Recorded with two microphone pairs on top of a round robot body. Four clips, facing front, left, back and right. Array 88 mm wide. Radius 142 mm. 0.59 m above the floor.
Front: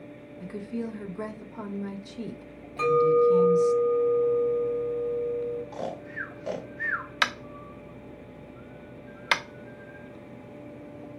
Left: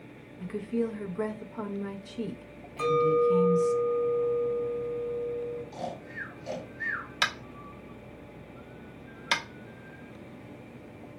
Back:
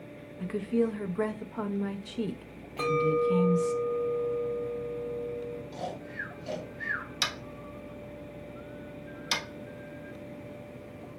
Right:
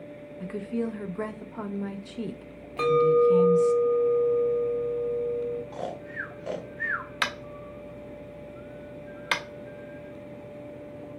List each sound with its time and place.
0.4 s a woman speaking: 125° right, 0.6 m
2.8 s a clink: 100° right, 1.9 m
5.7 s snoring: 40° right, 0.8 m
7.2 s tapping: 10° right, 0.7 m